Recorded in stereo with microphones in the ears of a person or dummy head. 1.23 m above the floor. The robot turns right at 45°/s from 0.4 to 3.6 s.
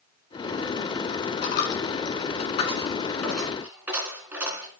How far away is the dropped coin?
About 1.7 m.